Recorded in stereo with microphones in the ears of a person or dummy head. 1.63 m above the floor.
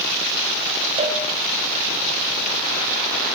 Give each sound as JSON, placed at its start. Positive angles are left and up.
{"t": 1.0, "sound": "a cowbell", "side_deg": -35, "distance_m": 8.5}